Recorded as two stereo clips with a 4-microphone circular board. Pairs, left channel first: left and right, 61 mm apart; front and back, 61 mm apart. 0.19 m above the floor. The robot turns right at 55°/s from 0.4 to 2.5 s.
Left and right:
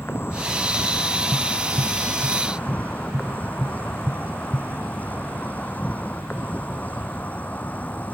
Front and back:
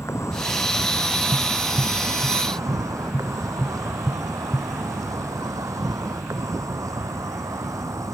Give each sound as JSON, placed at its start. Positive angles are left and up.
{"t": 0.0, "sound": "an insect", "azimuth_deg": 40}
{"t": 1.3, "sound": "tapping", "azimuth_deg": -90}